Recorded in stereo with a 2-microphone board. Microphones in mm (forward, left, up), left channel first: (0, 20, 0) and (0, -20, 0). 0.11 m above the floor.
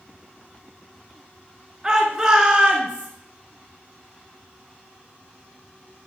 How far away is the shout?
About 1.2 m.